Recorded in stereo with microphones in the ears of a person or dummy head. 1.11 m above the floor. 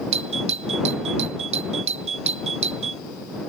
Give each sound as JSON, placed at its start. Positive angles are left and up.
{"t": 0.1, "sound": "a doorbell", "side_deg": -35}